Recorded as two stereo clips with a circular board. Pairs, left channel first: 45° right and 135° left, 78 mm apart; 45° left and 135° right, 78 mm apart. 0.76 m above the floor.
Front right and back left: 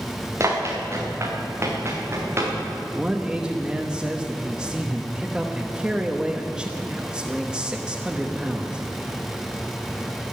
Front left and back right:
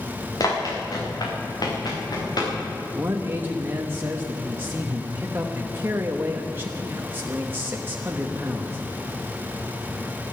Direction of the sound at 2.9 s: 160° right.